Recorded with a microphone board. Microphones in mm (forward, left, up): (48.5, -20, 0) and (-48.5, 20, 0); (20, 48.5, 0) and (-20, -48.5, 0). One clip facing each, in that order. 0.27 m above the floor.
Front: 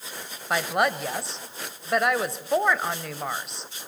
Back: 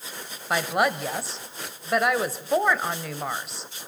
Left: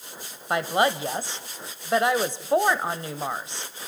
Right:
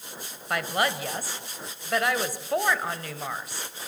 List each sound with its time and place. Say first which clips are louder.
0.5 s a woman speaking: even, left 4 dB; 70° left, 1.2 m